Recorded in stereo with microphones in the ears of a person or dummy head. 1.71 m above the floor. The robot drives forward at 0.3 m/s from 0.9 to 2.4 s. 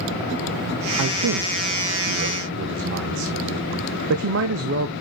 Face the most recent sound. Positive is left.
turn(degrees=-60)  # may be behind; listen again after turning